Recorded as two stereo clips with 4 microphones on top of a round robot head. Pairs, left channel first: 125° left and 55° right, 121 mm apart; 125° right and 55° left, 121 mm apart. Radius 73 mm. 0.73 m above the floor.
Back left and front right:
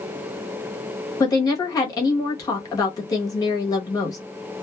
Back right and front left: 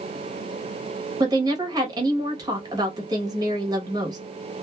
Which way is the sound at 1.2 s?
90° left.